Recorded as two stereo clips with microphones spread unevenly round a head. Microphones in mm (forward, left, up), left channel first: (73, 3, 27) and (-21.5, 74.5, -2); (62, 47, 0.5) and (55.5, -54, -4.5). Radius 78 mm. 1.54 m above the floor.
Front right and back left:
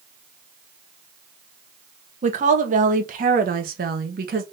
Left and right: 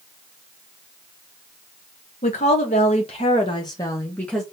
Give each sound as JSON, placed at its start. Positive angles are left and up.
{"t": 2.2, "sound": "a woman speaking", "azimuth_deg": 120, "distance_m": 1.7}